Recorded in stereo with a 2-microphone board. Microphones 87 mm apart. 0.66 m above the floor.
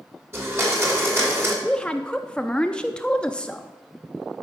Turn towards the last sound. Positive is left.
turn(degrees=10)  # may be behind; listen again after turning